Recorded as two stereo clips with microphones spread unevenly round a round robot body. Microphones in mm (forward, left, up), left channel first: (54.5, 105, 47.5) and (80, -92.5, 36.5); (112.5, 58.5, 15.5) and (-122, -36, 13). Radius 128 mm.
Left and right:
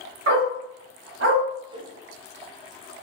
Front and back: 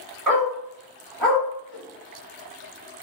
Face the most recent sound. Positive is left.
turn(degrees=-15)